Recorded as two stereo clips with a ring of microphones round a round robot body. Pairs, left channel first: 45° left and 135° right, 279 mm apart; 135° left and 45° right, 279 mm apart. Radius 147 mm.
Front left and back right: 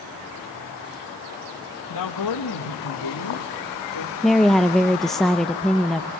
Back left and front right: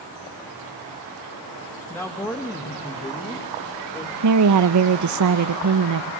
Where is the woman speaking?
45° right, 0.8 m.